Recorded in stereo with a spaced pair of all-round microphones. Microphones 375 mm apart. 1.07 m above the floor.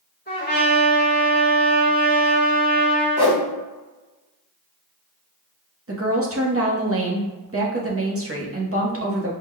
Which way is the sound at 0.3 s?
25° left (ahead or behind).